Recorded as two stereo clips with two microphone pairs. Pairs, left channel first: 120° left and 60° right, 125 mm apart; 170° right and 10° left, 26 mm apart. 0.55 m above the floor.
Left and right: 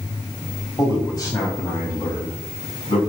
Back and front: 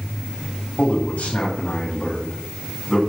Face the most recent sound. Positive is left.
turn(degrees=155)